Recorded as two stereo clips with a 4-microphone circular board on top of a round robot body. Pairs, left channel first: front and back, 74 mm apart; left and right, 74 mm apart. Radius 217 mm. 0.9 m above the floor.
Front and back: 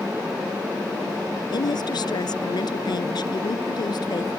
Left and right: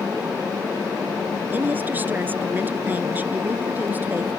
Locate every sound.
1.5 s a woman speaking: 25° right